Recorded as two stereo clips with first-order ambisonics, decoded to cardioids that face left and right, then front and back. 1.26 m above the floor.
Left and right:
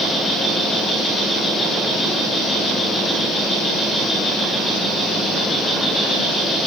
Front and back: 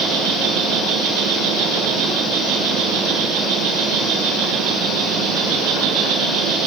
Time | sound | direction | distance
0.0 | an insect | straight behind | 9.5 m